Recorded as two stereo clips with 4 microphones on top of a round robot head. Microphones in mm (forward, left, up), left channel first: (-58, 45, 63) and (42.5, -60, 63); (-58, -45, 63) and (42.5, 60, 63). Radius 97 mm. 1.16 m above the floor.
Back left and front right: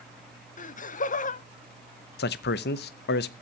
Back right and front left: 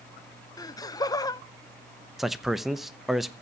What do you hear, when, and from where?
0.6 s laughter: 160° left, 1.1 m
2.2 s a man speaking: 135° left, 0.8 m